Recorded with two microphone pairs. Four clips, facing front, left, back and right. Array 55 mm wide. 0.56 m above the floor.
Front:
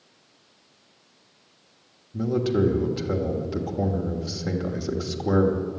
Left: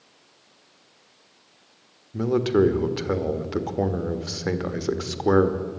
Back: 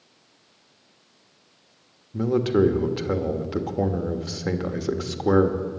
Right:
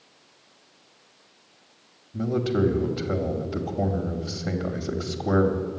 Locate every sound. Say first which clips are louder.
2.1 s a man speaking: left 4 dB, back 3 dB; 110° left, 1.4 m